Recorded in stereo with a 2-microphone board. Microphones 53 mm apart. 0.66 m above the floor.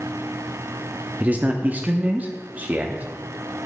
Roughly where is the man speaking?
Right.